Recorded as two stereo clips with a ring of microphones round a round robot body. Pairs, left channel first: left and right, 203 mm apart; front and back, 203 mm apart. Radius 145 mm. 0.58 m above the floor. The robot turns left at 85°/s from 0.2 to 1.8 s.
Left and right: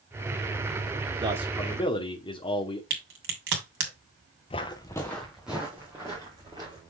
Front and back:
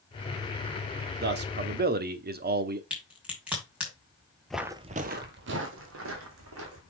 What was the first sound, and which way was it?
A man speaking, 155° right.